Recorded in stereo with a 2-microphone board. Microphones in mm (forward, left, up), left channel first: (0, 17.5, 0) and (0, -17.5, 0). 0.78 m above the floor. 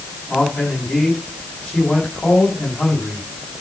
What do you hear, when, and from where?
0.3 s a man speaking: 35° left (ahead or behind), 7 m